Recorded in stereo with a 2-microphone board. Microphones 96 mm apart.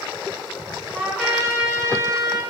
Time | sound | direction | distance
0.9 | a trumpet | 5° right (ahead or behind) | 0.9 m